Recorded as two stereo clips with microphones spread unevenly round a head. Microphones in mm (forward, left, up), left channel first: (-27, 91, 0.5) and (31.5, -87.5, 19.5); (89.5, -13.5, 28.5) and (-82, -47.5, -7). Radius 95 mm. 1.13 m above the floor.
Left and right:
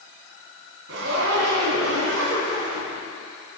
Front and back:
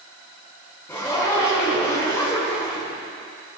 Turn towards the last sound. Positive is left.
turn(degrees=-65)